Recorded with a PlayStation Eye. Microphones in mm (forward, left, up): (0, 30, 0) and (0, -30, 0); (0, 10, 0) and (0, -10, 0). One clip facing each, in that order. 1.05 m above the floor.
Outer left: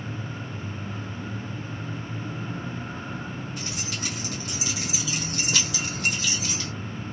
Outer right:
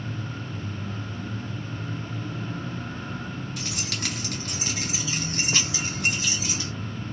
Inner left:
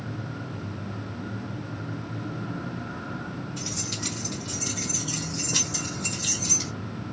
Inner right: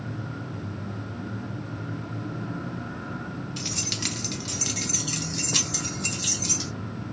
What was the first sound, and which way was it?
Keys jangling, 75° right (ahead or behind).